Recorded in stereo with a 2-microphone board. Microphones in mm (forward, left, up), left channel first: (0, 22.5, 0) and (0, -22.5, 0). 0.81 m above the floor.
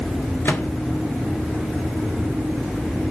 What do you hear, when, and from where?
0.5 s a microwave: 50° left (ahead or behind), 1.7 m